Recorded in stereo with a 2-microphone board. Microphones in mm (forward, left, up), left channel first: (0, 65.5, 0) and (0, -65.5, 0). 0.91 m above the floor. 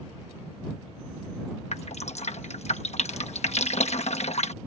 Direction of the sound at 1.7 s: 60° left (ahead or behind).